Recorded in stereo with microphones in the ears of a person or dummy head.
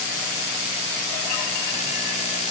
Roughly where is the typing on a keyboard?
I don't hear typing on a keyboard.